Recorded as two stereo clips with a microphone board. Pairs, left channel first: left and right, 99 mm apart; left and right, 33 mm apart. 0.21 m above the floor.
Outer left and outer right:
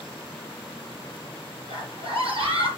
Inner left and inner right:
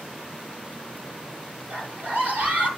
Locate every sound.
1.7 s a scream: 60° right (ahead or behind), 5.5 m